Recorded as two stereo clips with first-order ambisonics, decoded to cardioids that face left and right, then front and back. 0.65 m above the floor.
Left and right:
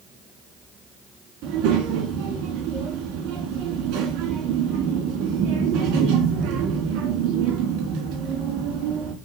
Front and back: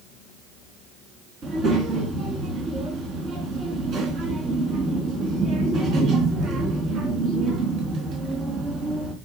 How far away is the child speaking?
About 4 m.